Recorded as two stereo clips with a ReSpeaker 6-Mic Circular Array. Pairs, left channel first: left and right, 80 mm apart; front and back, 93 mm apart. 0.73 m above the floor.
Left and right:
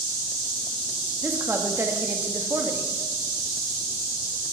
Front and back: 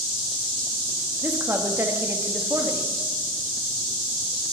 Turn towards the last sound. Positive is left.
turn(degrees=-130)